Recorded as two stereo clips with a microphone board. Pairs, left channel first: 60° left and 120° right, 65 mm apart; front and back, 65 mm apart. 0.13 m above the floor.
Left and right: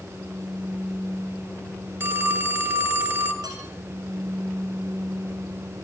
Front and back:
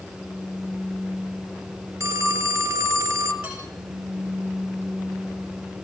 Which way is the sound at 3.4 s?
105° right.